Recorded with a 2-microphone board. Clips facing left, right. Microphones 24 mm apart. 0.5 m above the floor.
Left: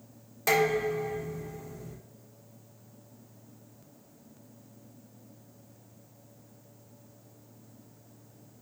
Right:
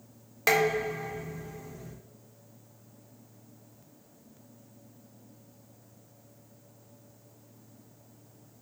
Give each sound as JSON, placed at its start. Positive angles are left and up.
{"t": 0.5, "sound": "dishes clattering", "side_deg": -40, "distance_m": 0.7}